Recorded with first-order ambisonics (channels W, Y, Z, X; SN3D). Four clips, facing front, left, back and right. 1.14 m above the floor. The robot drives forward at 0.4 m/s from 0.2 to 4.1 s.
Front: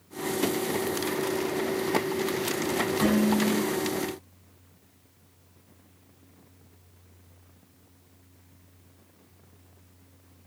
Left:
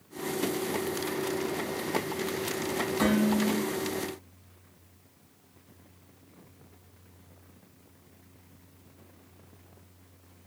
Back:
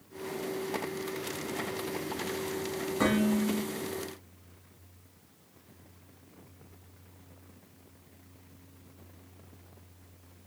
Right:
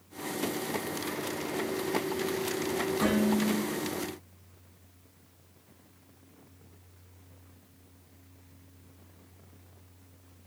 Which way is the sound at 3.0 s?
130° left.